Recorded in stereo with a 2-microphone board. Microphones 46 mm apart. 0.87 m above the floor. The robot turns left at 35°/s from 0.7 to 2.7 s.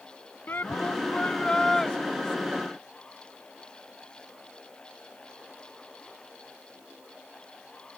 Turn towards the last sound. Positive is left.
turn(degrees=-20)